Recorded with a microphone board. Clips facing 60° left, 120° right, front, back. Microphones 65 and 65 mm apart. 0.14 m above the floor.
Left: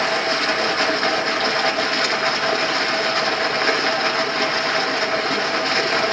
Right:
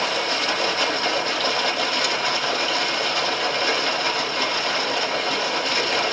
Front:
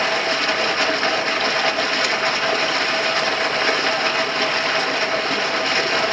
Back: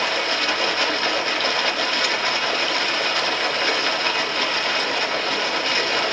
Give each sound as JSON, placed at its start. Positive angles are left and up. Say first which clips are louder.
{"t": 0.0, "sound": "running water", "louder": "left 4 dB, front 3 dB", "azimuth_deg": 55, "distance_m": 1.2}